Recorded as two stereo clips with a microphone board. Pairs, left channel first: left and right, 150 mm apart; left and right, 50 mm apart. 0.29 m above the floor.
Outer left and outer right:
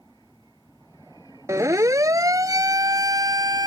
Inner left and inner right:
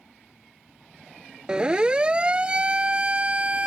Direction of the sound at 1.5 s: 20° right (ahead or behind).